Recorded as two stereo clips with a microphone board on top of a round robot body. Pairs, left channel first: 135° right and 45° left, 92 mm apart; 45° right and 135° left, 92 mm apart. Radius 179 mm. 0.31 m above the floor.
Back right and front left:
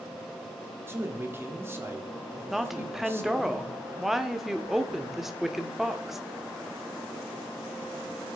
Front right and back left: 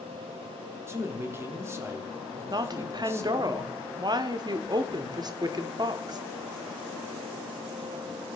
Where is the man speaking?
90° left, 1.8 m.